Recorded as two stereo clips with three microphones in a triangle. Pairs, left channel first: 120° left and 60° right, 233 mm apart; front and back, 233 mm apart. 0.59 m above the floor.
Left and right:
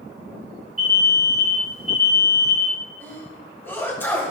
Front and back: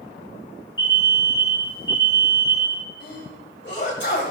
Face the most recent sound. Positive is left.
turn(degrees=40)